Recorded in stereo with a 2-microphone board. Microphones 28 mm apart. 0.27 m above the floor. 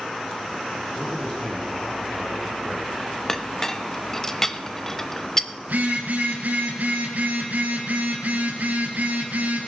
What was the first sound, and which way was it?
A man speaking, 40° left (ahead or behind).